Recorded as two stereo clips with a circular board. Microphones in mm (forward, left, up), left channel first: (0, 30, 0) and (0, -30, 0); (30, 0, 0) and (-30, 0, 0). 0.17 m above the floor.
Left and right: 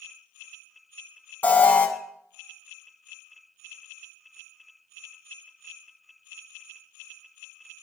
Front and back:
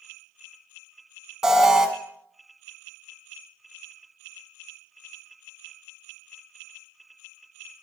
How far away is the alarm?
About 1.0 m.